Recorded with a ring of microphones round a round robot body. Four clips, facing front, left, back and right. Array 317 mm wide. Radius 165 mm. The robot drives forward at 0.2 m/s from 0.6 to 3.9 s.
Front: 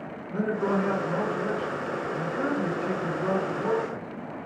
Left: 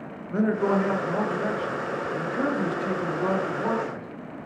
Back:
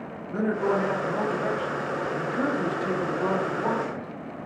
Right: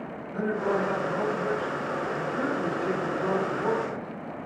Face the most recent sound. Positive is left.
turn(degrees=145)